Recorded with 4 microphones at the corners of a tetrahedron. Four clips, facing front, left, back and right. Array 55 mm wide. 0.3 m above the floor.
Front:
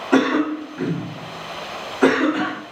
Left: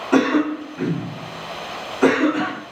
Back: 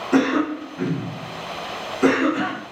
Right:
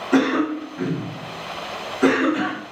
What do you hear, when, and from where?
0.1 s a cough: 20° left, 2.5 m